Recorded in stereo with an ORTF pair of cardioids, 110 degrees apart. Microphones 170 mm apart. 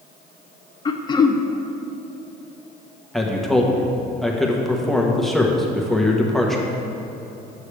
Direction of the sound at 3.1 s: Straight ahead.